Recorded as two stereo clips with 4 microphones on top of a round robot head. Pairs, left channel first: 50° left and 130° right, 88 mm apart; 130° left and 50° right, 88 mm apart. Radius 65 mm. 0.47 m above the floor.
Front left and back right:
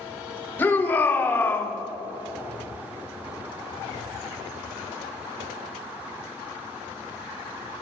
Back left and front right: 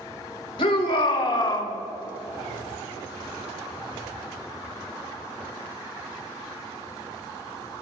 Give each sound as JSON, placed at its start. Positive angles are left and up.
{"t": 0.6, "sound": "a shout", "azimuth_deg": 115, "distance_m": 3.0}